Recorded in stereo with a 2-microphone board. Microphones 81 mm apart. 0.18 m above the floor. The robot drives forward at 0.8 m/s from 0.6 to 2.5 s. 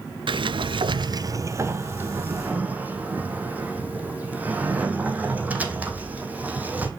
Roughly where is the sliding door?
Right.